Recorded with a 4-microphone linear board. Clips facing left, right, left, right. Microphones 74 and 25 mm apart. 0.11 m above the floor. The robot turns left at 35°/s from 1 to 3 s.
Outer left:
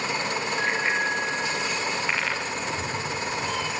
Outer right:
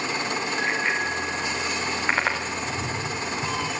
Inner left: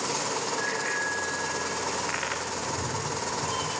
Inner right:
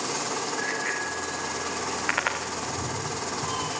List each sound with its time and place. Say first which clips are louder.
0.6 s a bicycle bell: outer left 1 dB, even; centre (ahead or behind), 6 m; by 2.4 s 45° right (ahead or behind), 6 m
2.5 s a cat meowing: even, even; centre (ahead or behind), 5 m; by 3.7 s 15° right (ahead or behind), 5 m